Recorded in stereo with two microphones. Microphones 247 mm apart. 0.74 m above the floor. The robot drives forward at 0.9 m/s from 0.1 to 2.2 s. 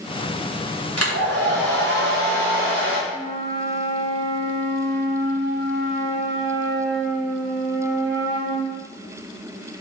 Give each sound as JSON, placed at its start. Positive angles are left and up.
{"t": 1.0, "sound": "a hair dryer", "side_deg": -80, "distance_m": 2.0}
{"t": 3.1, "sound": "a flute", "side_deg": -70, "distance_m": 2.5}